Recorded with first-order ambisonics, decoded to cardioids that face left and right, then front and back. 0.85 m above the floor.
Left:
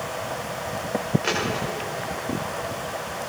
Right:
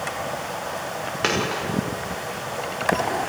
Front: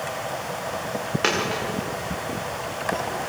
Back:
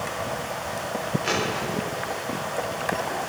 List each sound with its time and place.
1.2 s a dropped coin: 40° right, 8 m